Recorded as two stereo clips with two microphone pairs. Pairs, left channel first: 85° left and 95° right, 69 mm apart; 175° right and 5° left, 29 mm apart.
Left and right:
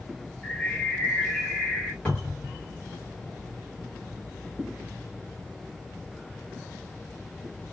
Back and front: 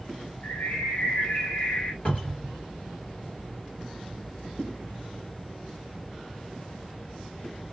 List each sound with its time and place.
0.4 s a bird: 165° left, 1.0 m
2.0 s a cupboard door: 155° left, 1.6 m